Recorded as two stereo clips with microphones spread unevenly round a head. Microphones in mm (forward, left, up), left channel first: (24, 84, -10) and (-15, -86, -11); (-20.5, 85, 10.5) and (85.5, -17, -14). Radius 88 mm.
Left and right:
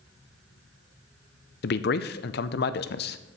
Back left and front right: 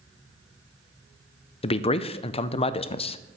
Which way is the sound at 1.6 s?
85° left.